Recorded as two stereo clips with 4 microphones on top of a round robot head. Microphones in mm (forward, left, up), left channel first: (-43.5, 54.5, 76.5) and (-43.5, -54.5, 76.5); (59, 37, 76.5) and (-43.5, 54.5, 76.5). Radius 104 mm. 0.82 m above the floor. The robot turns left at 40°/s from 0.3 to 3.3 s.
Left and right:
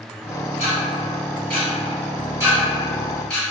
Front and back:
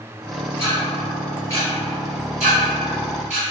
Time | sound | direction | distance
0.6 | ticking | 80° right | 1.1 m